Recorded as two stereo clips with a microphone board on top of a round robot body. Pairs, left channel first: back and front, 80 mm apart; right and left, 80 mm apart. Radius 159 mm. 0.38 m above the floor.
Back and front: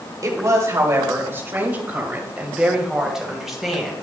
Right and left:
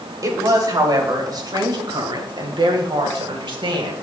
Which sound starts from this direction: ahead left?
A woman speaking, at 0.2 s.